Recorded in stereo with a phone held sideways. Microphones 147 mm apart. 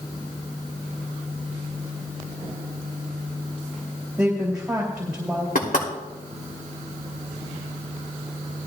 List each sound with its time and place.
4.2 s a woman speaking: 5° right (ahead or behind), 2.5 m
5.5 s knocking: 75° left (ahead or behind), 2.5 m